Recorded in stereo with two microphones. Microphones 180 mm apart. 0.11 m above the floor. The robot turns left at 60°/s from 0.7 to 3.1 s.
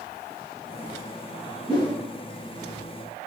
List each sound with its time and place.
1.7 s a whoosh: 30° left (ahead or behind), 1.5 m; by 2.0 s 45° left (ahead or behind), 1.5 m